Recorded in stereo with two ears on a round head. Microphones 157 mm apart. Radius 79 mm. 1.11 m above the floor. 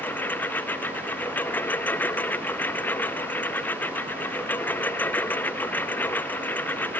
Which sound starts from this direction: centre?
A lawn mower, at 0.0 s.